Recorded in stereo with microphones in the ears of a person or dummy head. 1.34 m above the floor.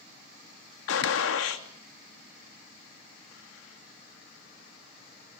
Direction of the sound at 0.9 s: 90° left.